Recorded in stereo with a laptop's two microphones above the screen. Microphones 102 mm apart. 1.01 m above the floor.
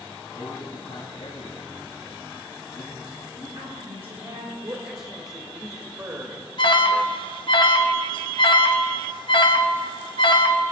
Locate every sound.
0.3 s a man speaking: 65° left (ahead or behind), 2.5 m
3.3 s a woman speaking: 70° right (ahead or behind), 4.5 m
4.6 s a man speaking: 35° right (ahead or behind), 1.5 m
6.6 s an alarm: 50° left (ahead or behind), 1.1 m